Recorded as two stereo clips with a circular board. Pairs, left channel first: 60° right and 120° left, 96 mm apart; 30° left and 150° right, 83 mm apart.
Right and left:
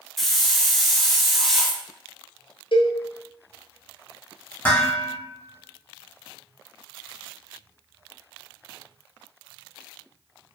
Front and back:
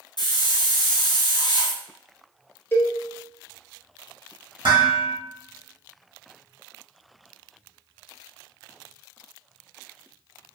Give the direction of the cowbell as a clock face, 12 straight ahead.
1 o'clock.